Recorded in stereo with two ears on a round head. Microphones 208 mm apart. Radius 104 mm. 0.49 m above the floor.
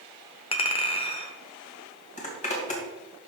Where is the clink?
25° left (ahead or behind), 0.9 m.